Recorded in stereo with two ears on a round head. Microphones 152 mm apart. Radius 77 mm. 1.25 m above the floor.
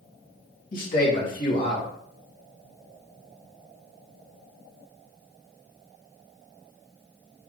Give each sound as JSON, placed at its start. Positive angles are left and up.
{"t": 0.7, "sound": "a man speaking", "side_deg": 55, "distance_m": 2.0}